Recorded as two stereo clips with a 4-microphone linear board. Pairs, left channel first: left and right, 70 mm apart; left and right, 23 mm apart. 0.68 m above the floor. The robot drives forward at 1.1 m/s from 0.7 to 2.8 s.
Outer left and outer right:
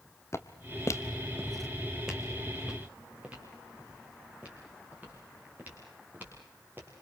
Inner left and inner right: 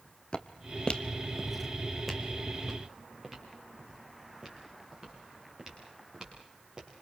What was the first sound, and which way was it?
Footsteps, 40° left (ahead or behind).